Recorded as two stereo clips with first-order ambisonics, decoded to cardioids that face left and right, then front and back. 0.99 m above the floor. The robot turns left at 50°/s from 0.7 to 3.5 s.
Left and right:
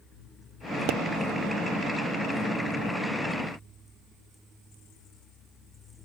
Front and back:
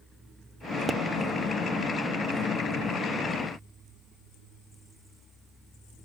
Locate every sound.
0.9 s a pop: 110° right, 1.0 m; by 1.0 s 115° right, 1.0 m